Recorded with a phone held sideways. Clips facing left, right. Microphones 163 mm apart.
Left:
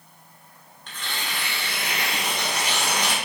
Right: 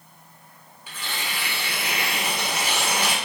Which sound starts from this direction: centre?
Tearing paper, at 0.9 s.